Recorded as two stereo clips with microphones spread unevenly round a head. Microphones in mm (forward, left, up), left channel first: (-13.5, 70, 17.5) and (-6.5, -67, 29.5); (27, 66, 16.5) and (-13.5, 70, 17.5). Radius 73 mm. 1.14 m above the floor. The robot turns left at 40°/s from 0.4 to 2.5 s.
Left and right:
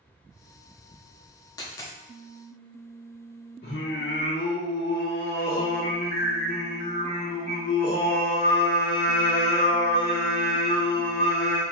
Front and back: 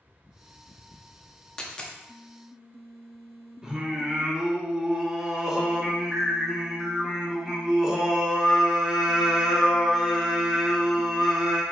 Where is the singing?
100° left, 1.2 m.